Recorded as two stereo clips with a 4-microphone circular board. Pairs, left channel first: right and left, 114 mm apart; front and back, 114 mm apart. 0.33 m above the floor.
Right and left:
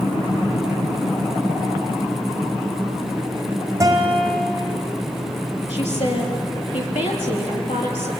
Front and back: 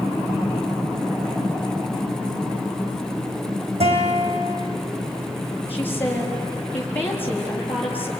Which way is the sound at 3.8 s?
155° left.